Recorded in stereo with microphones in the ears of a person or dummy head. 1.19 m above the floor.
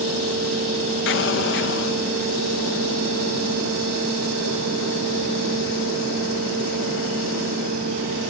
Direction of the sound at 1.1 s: 65° left (ahead or behind).